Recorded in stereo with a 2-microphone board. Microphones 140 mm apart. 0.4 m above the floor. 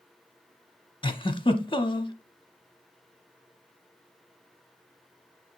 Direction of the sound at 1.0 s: 35° left (ahead or behind).